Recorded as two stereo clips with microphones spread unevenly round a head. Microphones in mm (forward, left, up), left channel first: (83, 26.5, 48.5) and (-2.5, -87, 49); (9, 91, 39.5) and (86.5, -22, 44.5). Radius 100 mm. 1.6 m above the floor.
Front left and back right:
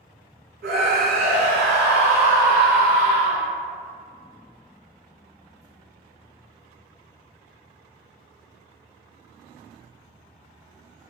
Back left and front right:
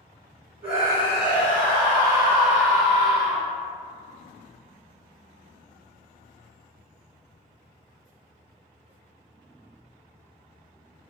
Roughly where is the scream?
Behind right.